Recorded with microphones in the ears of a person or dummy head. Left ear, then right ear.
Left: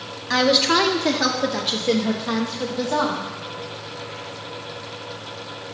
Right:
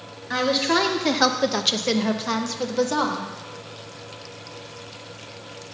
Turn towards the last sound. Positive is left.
turn(degrees=-80)